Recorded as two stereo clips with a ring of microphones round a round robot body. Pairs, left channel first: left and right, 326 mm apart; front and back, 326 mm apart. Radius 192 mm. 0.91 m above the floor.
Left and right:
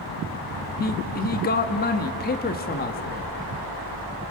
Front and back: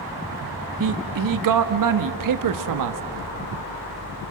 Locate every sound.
0.8 s a man speaking: 155° left, 1.4 m